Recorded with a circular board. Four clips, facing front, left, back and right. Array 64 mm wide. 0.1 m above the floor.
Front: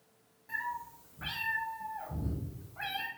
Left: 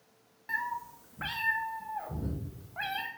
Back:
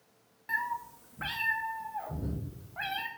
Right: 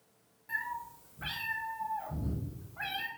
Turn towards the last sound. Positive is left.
turn(degrees=115)